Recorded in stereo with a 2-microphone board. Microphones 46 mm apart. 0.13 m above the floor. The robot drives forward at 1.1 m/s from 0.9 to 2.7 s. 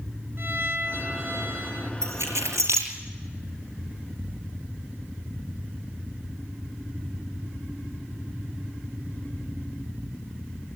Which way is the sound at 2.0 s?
75° right (ahead or behind).